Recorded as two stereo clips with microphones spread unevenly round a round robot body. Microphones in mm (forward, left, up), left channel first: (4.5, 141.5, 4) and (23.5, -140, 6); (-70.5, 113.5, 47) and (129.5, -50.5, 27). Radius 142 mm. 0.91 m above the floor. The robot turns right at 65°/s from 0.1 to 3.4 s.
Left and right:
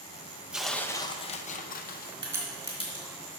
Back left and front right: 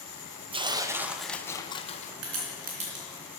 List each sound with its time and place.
0.5 s tearing paper: 5° right, 0.6 m; by 2.1 s 100° left, 0.6 m
2.2 s a crack: 15° right, 3 m; by 3.0 s 40° left, 3 m